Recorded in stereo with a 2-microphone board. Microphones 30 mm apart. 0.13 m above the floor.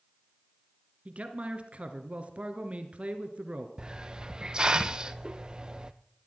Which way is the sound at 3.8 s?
30° right (ahead or behind).